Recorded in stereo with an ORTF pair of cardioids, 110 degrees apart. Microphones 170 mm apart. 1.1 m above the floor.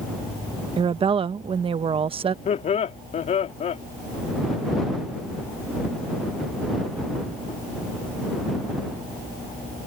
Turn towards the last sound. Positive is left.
turn(degrees=45)